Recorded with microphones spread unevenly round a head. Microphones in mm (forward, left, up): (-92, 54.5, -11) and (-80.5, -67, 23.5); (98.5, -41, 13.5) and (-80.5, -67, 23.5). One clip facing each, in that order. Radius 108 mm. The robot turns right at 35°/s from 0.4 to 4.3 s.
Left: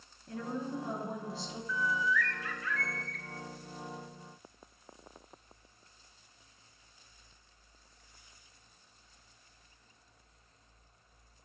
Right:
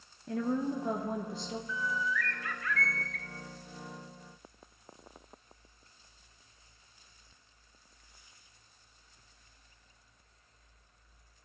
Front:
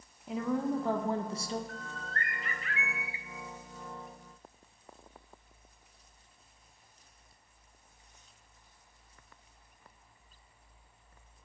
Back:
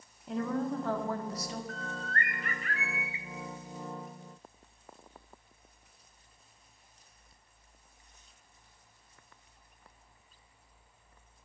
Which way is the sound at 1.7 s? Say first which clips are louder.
Left 4 dB, back 4 dB; 155° right.